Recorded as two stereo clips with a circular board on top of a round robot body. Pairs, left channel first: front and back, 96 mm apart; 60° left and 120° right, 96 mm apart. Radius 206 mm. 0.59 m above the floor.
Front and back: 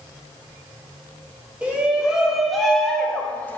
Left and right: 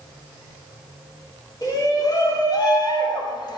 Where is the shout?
105° left, 1.9 m; by 3.6 s 65° left, 1.5 m.